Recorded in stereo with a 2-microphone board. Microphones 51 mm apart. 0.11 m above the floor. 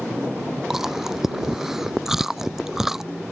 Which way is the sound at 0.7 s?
5° right (ahead or behind).